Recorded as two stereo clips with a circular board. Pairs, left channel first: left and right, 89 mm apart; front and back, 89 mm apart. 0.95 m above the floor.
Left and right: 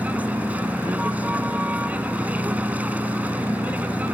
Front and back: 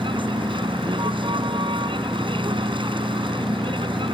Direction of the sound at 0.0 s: 165° right.